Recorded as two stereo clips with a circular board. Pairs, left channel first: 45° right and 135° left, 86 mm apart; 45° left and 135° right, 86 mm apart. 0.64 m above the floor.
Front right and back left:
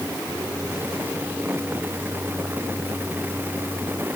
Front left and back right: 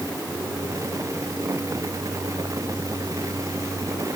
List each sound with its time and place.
Only background noise.